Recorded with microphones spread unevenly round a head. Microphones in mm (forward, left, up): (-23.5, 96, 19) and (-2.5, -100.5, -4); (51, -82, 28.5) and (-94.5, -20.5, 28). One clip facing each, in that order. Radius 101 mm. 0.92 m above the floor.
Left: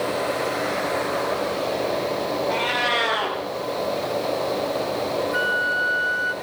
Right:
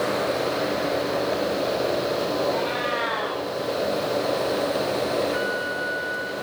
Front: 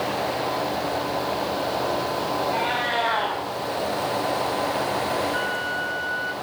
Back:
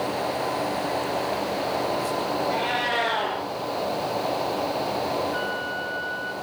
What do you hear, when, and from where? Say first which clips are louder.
2.5 s a cat meowing: even, front 1 dB; 95° left, 6.5 m
5.3 s a flute: even, front 1 dB; 65° left, 1.6 m